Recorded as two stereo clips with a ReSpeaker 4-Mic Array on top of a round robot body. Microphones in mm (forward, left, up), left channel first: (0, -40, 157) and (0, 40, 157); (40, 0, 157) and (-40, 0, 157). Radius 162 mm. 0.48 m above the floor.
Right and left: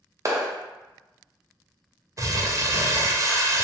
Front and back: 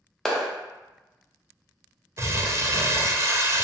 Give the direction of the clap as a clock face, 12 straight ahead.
9 o'clock.